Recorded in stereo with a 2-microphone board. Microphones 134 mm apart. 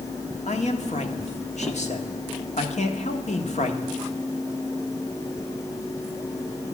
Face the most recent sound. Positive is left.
turn(degrees=60)  # may be behind; listen again after turning